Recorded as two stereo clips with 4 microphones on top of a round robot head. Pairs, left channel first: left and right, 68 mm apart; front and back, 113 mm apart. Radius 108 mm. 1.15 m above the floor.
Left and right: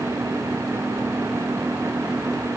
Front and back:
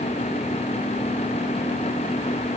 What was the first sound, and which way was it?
Only background noise.